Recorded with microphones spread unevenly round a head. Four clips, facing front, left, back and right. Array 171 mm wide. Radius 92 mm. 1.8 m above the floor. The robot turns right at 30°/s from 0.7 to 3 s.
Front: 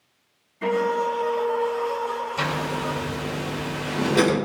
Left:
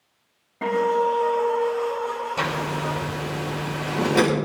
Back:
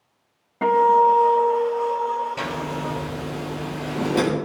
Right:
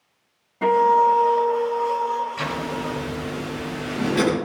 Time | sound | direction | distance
0.6 | a guitar | 175° left | 4.5 m
2.4 | a zipper | 130° left | 6.5 m